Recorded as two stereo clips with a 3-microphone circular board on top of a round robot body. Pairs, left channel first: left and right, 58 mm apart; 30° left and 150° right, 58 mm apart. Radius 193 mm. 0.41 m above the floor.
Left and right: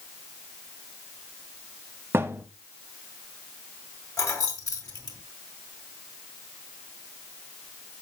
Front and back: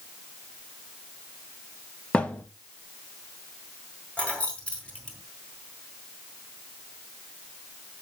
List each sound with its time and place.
2.1 s a thud: 35° right, 0.9 m
4.2 s keys jangling: 100° left, 2.5 m